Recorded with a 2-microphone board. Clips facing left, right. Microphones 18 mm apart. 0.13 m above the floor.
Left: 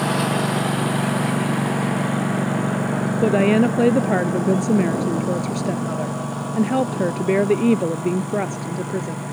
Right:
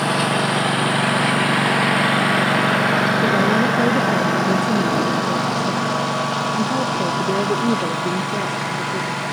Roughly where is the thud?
I don't hear a thud.